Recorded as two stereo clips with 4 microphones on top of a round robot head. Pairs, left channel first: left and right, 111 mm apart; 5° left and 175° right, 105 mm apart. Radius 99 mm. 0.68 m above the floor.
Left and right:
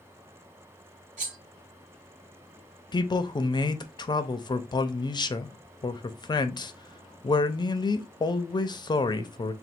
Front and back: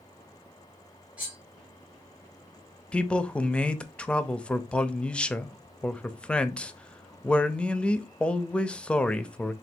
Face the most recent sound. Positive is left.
turn(degrees=80)